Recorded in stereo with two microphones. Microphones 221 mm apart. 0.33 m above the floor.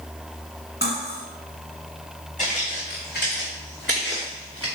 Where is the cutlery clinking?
45° left (ahead or behind), 1.8 m.